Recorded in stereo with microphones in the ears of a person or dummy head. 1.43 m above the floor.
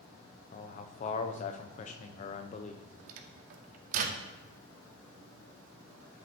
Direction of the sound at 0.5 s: 40° left (ahead or behind).